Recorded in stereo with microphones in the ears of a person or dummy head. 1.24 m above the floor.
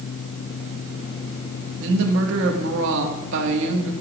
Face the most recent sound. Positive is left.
turn(degrees=-65)  # may be behind; listen again after turning